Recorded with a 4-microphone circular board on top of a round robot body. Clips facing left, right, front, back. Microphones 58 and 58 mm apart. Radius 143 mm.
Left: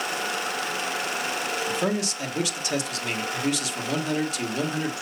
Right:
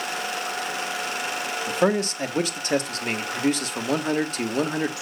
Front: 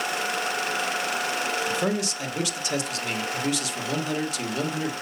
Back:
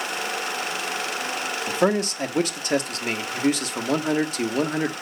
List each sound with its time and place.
1.7 s a man speaking: 135° right, 1.5 m